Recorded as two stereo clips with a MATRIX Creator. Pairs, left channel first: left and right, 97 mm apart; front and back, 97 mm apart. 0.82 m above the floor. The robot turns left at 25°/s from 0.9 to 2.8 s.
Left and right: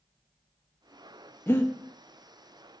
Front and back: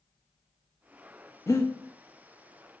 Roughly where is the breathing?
Ahead left.